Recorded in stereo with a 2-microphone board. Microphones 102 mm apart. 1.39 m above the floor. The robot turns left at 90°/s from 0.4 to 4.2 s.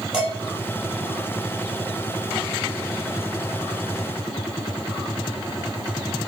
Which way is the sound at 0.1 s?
5° right (ahead or behind).